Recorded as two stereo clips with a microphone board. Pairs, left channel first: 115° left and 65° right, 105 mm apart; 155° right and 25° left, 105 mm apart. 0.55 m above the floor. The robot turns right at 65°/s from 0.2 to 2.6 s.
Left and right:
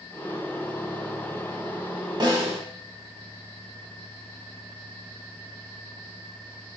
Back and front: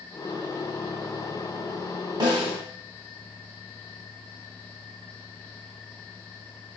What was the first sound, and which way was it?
A snare drum, 20° right.